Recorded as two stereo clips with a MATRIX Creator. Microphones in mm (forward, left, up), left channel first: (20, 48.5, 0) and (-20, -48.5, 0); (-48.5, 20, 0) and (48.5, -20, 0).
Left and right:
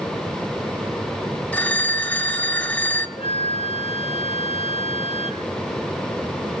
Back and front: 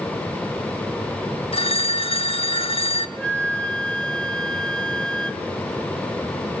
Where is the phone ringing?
145° left, 1.4 m.